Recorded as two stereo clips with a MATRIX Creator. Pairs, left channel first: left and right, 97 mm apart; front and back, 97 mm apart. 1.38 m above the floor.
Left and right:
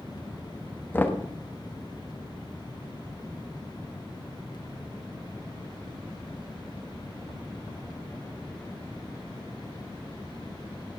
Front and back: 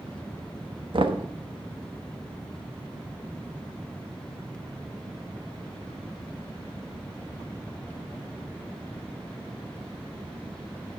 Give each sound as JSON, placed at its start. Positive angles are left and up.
{"t": 0.9, "sound": "knocking", "azimuth_deg": 155, "distance_m": 1.2}